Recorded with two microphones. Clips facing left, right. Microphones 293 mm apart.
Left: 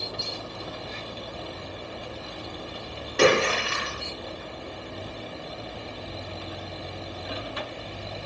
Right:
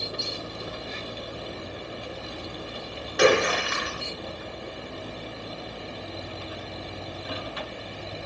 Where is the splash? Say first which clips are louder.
Even; 30° left (ahead or behind), 7 m.